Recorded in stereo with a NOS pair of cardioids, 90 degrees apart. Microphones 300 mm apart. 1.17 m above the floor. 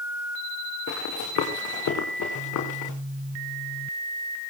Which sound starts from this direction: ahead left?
Running footsteps, at 0.9 s.